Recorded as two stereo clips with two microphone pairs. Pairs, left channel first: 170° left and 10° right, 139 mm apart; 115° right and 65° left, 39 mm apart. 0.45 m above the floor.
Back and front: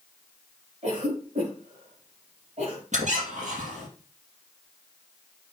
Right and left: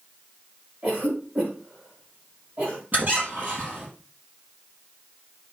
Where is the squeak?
20° left, 3.5 m.